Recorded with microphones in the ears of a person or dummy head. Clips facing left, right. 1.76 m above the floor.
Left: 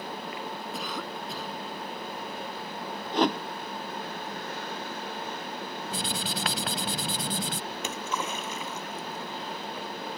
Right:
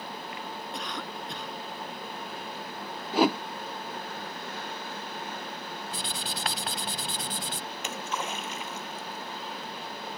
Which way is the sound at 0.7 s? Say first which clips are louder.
Left 2 dB; centre (ahead or behind).